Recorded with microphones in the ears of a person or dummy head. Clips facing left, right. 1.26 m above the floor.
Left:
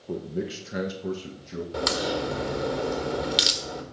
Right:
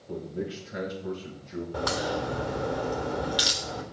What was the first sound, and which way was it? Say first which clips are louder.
A man speaking: left 3 dB; 70° left (ahead or behind).